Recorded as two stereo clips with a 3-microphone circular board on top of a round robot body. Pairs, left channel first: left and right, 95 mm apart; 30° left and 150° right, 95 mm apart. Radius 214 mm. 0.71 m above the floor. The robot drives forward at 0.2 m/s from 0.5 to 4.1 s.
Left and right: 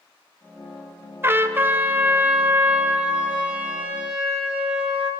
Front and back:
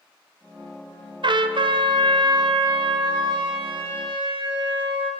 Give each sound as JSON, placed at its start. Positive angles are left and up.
{"t": 1.2, "sound": "a trumpet", "azimuth_deg": -150, "distance_m": 0.6}